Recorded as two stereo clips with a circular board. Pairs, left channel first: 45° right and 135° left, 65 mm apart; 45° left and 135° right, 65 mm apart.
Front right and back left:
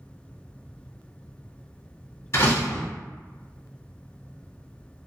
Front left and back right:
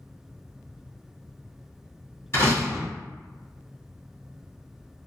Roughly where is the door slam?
Ahead.